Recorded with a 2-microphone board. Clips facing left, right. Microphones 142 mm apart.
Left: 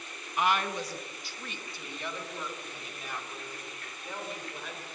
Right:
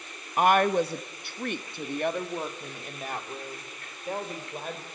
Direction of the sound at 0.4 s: 45° right (ahead or behind).